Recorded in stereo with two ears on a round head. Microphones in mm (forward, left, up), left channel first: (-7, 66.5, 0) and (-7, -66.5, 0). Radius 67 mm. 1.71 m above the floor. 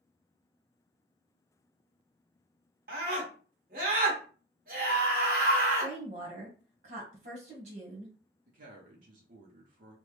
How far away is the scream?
About 1.5 m.